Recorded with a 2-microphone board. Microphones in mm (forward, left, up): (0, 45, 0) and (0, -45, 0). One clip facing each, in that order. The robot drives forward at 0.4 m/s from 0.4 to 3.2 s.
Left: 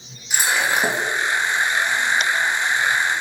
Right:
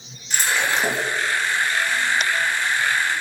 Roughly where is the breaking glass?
Centre.